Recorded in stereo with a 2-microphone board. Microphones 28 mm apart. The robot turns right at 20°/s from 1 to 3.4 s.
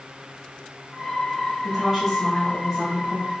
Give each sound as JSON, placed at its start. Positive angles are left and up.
{"t": 1.6, "sound": "a woman speaking", "azimuth_deg": -5, "distance_m": 1.7}